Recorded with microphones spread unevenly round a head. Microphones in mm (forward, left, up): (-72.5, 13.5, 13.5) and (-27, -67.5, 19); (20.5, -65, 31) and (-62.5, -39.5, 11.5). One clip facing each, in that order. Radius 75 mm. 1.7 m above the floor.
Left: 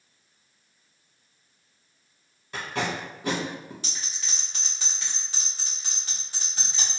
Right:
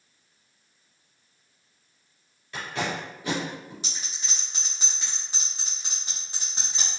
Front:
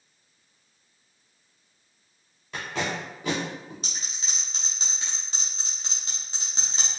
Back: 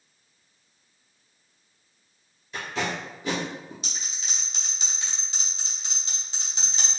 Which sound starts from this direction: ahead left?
Tape being pulled, at 2.5 s.